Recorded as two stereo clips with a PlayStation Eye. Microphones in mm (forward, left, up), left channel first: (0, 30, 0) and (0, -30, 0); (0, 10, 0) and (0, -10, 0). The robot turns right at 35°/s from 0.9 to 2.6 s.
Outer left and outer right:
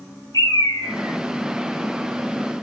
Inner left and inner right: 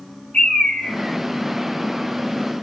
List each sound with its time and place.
0.3 s a bird: 80° left, 8.5 m; by 1.2 s 70° left (ahead or behind), 8.5 m